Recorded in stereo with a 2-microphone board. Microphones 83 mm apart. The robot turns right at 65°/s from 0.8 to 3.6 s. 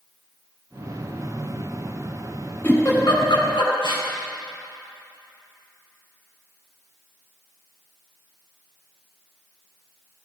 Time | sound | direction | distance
2.6 | a giggle | 20° left (ahead or behind) | 4 m